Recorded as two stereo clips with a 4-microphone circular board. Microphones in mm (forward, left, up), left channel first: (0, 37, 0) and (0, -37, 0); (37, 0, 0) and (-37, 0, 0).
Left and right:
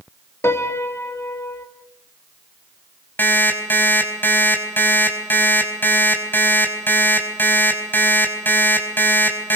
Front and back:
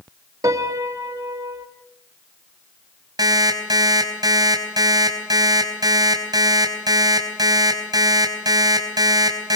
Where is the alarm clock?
155° left, 4.5 m.